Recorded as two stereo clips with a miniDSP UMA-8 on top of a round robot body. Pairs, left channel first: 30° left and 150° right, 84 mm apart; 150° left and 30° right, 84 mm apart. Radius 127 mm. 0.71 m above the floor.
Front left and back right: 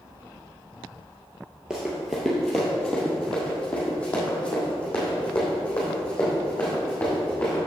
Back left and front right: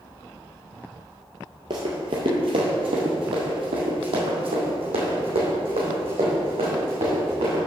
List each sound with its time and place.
1.7 s running footsteps: 70° right, 0.9 m; by 7.6 s 45° right, 4 m